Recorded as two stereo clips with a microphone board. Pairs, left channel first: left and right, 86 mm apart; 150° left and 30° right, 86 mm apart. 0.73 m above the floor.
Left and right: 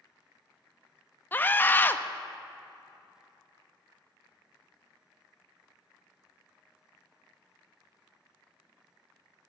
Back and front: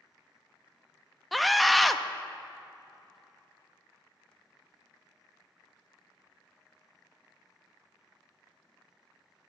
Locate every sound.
1.3 s a scream: 60° left, 0.5 m